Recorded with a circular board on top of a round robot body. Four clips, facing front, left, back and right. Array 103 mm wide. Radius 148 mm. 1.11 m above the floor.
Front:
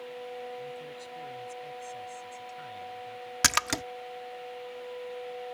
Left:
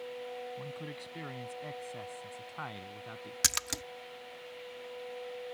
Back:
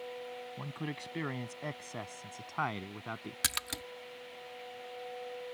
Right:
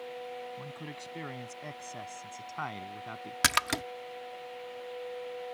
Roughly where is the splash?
Ahead right.